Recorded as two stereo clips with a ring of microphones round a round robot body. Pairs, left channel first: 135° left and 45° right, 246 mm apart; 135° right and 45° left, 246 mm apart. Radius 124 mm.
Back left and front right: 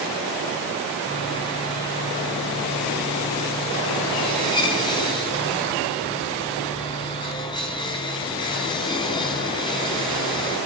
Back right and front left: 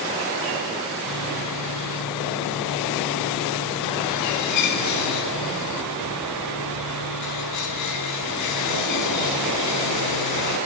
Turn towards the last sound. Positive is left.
turn(degrees=-150)